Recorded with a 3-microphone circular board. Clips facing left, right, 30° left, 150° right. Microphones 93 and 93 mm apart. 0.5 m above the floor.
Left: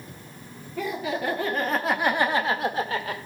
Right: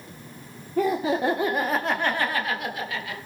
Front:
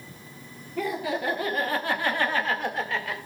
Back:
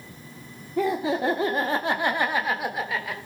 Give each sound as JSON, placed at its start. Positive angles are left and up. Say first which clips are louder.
{"t": 0.8, "sound": "laughter", "louder": "right 6 dB, back 5 dB", "azimuth_deg": -100, "distance_m": 1.1}